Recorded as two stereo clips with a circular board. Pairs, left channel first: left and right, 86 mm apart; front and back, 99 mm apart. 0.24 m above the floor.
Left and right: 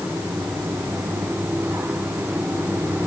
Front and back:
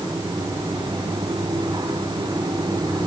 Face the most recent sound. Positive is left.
No sound to turn to.